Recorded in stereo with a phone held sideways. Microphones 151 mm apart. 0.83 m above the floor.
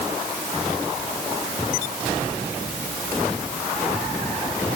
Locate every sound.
Only background noise.